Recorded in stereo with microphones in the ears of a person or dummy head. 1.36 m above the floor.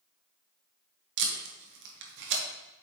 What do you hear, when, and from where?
1.2 s tape being pulled: 60° right (ahead or behind), 1.6 m